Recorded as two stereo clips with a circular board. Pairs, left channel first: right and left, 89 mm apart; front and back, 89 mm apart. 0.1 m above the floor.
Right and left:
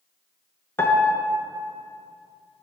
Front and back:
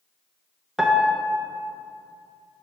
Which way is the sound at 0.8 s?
100° right.